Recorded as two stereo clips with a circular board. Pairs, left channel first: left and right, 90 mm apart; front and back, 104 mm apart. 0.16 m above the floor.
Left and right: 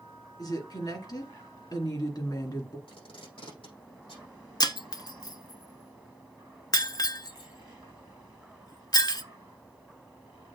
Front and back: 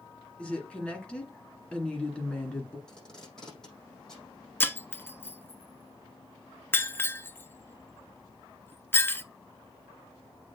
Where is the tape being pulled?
85° left, 6 m.